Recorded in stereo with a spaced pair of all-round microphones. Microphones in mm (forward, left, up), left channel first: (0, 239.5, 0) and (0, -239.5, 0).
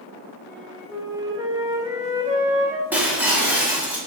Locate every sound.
0.5 s a flute: 5° right (ahead or behind), 2 m
2.9 s breaking glass: 5° right (ahead or behind), 2.5 m